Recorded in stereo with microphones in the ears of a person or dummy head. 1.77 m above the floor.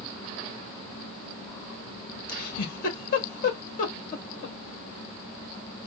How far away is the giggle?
About 1.7 m.